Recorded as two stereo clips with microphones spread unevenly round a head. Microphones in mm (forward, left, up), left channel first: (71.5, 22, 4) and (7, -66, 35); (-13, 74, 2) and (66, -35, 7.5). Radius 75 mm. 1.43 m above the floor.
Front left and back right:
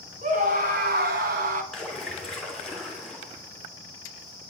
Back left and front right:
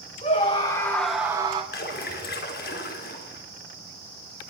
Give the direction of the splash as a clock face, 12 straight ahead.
7 o'clock.